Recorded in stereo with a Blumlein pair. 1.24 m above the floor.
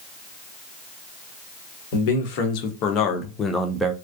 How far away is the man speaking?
About 1.3 m.